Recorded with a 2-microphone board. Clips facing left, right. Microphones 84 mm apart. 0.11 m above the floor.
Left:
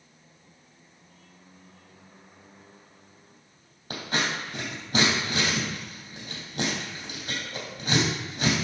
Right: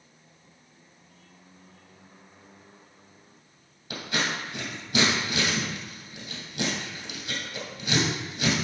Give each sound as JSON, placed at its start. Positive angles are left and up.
{"t": 3.9, "sound": "scissors", "side_deg": 40, "distance_m": 3.5}